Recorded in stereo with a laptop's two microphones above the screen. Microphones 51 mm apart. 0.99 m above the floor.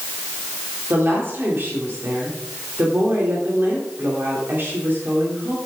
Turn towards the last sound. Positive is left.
turn(degrees=-45)  # may be behind; listen again after turning